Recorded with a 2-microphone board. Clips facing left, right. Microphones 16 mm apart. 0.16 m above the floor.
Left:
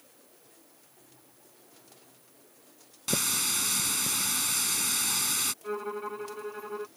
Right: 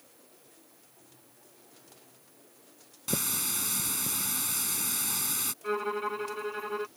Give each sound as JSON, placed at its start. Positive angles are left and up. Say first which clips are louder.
{"t": 3.1, "sound": "a running tap", "louder": "left 4 dB", "side_deg": 25}
{"t": 5.6, "sound": "a violin", "louder": "right 3 dB", "side_deg": -45}